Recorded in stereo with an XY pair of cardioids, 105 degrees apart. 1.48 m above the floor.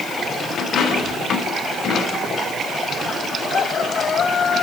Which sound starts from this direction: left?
A dropped coin, at 0.6 s.